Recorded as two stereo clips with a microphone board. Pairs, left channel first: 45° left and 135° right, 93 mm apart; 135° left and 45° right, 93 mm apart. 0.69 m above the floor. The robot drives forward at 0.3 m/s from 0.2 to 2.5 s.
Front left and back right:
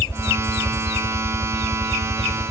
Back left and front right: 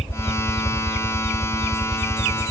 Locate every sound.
0.0 s a helicopter: 125° left; by 2.5 s 130° left